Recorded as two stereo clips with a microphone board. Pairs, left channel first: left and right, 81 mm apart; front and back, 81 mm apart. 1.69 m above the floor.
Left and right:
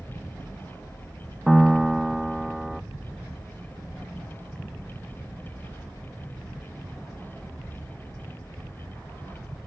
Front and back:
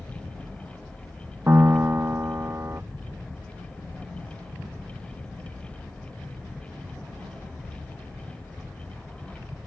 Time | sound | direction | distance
1.5 | a piano | 170° right | ?